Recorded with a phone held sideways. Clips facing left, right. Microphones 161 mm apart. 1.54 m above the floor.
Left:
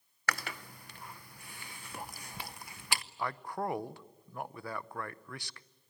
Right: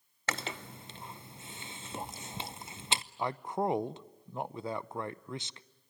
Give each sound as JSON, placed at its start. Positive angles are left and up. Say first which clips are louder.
{"t": 0.3, "sound": "chewing", "louder": "right 1 dB", "side_deg": -20, "distance_m": 0.6}
{"t": 3.2, "sound": "a man speaking", "louder": "right 4 dB", "side_deg": -20, "distance_m": 0.5}